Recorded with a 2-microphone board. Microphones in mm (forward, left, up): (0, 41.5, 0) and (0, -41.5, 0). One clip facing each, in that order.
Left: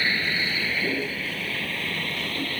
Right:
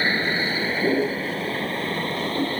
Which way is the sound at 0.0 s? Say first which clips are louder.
Right 4 dB; 35° right (ahead or behind).